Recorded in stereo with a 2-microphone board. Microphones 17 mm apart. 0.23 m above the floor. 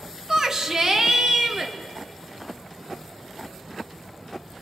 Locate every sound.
0.3 s a shout: 30° right (ahead or behind), 2 m; by 1.7 s 35° right (ahead or behind), 4 m